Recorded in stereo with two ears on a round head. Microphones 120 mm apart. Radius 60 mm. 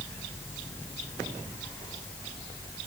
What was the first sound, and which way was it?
Only background noise.